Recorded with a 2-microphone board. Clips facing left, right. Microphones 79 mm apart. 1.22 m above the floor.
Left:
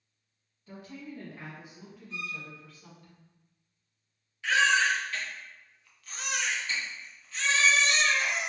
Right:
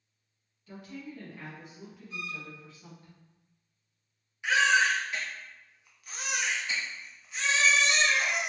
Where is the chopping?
I don't hear chopping.